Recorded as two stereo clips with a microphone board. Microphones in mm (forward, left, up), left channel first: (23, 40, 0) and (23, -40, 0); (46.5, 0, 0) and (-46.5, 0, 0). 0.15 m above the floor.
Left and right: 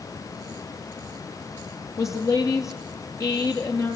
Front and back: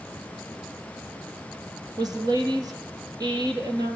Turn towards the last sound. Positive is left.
turn(degrees=140)